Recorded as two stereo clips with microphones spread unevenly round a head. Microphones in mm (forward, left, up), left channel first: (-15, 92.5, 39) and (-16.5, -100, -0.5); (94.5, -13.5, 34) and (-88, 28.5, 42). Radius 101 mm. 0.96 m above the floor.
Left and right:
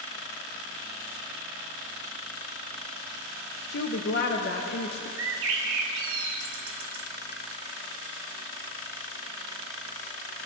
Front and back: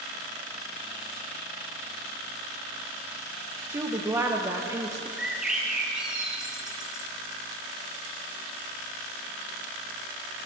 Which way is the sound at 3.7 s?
95° left.